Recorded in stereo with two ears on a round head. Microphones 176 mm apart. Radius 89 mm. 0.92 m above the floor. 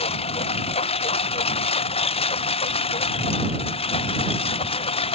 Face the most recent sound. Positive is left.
turn(degrees=30)  # may be behind; listen again after turning